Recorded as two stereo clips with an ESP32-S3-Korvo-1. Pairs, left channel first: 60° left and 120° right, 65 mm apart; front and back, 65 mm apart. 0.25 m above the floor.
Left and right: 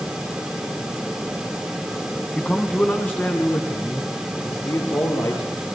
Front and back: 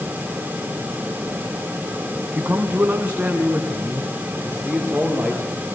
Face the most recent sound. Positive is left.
turn(degrees=100)